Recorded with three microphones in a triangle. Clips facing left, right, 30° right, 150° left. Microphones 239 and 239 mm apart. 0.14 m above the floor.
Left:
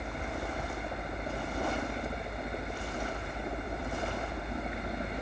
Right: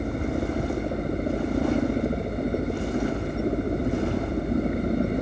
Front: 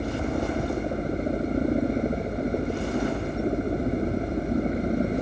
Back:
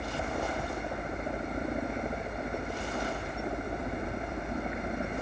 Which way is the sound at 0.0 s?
70° right.